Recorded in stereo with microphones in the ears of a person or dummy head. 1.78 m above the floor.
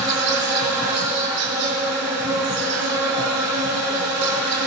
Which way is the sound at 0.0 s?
55° right (ahead or behind).